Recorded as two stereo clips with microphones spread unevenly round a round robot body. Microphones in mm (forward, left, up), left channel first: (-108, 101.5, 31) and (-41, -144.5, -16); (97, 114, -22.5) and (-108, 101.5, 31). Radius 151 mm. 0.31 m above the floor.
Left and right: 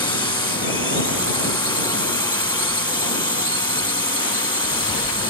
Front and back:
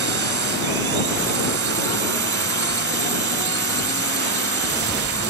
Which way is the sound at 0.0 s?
Straight behind.